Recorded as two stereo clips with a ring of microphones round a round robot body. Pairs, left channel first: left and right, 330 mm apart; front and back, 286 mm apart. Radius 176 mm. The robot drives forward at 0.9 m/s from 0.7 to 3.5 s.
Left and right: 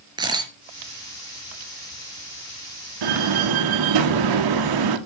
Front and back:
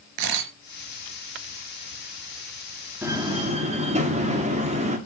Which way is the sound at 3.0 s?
95° right.